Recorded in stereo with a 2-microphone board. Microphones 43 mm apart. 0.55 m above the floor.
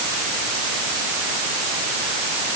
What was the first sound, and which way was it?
Only background noise.